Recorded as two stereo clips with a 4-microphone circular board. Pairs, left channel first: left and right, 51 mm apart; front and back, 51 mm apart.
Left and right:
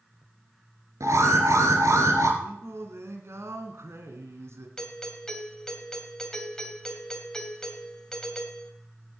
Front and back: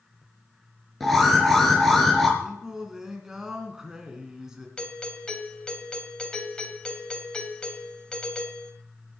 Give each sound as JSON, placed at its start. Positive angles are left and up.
{"t": 1.0, "sound": "an alarm", "azimuth_deg": -85, "distance_m": 3.5}
{"t": 2.4, "sound": "singing", "azimuth_deg": -100, "distance_m": 2.5}
{"t": 4.8, "sound": "a doorbell", "azimuth_deg": 35, "distance_m": 2.0}